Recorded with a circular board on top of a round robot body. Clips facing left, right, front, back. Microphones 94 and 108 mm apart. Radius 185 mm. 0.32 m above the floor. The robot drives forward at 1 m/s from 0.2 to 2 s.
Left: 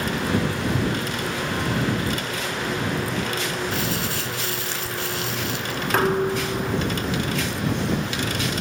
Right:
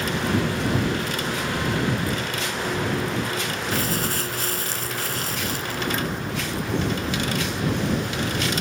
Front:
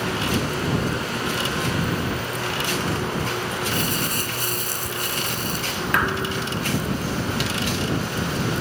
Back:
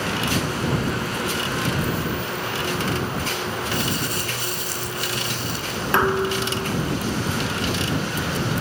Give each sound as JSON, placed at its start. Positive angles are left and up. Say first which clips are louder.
{"t": 3.7, "sound": "crumpling", "louder": "right 1 dB, even", "azimuth_deg": -40}
{"t": 5.9, "sound": "dishes clattering", "louder": "left 7 dB, back 5 dB", "azimuth_deg": 120}